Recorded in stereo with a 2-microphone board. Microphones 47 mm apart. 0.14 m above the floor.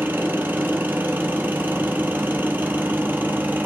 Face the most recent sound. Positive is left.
turn(degrees=-45)  # may be behind; listen again after turning